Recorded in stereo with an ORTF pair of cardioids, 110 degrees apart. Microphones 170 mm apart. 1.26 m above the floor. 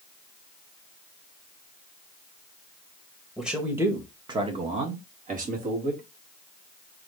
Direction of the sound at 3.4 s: Straight ahead.